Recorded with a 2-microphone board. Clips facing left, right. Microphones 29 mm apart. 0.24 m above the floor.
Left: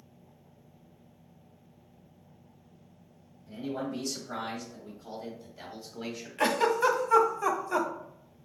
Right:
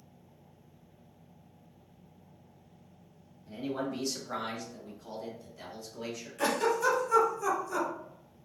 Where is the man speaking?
20° right (ahead or behind), 1.5 m; by 6.3 s 30° left (ahead or behind), 1.5 m.